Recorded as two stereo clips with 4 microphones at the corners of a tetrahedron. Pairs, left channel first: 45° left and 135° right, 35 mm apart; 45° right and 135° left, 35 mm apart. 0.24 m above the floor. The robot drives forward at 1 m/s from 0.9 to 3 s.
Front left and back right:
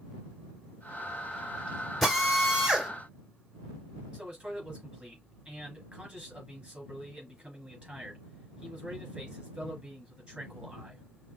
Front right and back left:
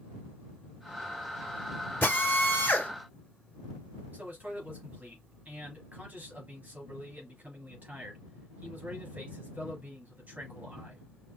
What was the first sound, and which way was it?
A drill, 35° right.